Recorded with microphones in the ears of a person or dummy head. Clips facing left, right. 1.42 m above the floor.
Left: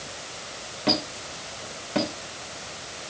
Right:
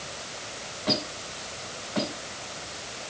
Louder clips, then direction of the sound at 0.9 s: Left 3 dB; 45° left (ahead or behind).